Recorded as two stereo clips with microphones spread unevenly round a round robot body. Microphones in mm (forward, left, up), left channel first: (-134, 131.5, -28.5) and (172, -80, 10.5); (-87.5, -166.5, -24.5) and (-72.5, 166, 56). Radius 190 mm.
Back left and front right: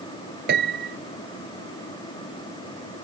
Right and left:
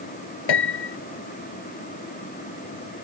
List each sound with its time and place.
0.5 s a piano: 100° right